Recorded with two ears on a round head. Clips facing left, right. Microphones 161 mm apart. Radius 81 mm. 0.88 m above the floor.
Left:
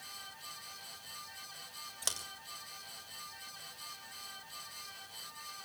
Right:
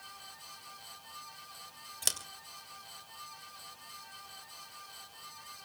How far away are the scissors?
About 2.5 m.